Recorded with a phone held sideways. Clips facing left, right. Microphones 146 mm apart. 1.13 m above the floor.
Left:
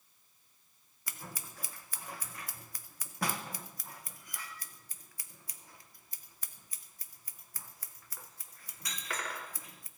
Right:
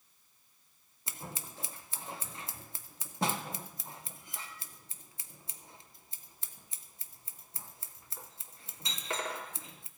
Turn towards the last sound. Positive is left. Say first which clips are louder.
# right 3 dB
turn(degrees=-25)  # may be behind; listen again after turning